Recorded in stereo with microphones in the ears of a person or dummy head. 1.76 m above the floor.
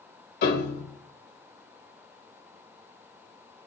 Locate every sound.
0.4 s a piano: 60° left (ahead or behind), 0.9 m